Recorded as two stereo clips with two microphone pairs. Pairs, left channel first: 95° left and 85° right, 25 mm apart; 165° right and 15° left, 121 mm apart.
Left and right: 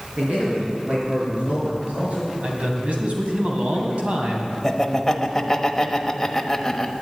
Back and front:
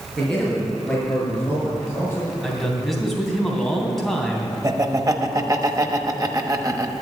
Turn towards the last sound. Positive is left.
turn(degrees=35)